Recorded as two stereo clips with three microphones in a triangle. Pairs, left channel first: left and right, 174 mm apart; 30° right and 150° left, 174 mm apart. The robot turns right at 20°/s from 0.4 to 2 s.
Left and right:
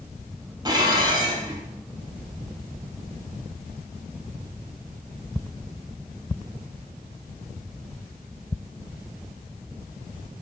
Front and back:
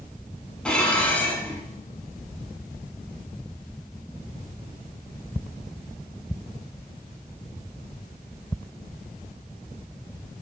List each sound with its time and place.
0.7 s dishes clattering: 110° right, 0.8 m; by 1.6 s 90° right, 0.8 m